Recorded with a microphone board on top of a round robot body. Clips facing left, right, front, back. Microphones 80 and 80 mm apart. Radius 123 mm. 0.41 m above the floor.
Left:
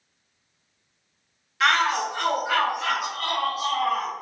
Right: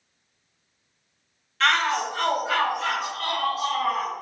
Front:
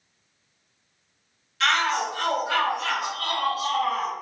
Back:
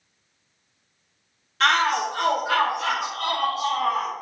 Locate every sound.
1.6 s a shout: 165° left, 1.1 m; by 4.1 s 175° left, 3 m